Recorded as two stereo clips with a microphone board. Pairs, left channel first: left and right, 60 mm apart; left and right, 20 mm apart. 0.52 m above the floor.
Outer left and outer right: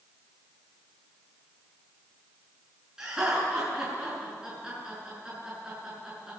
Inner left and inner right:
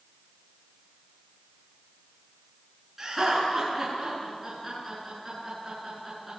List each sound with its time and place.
3.0 s laughter: 10° right (ahead or behind), 7 m